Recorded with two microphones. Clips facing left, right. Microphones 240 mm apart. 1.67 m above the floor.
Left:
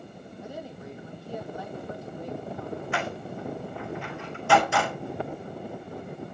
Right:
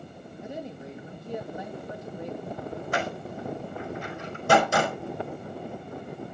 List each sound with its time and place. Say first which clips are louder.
0.4 s a woman speaking: right 2 dB; 20° right (ahead or behind), 3 m
2.9 s a door slam: right 1 dB; 45° right (ahead or behind), 5 m